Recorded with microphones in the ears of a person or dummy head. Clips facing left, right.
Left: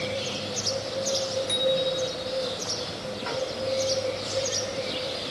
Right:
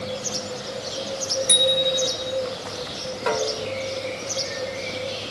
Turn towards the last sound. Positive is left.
turn(degrees=-70)  # may be behind; listen again after turning